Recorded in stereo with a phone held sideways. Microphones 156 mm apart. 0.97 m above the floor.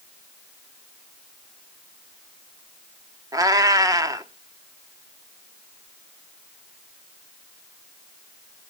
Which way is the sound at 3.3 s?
20° right (ahead or behind).